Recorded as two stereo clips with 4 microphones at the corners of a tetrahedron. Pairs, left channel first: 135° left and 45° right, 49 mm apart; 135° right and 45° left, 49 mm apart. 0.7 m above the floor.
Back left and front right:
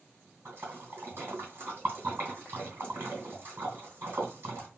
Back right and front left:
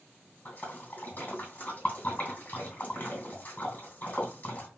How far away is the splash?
About 2 m.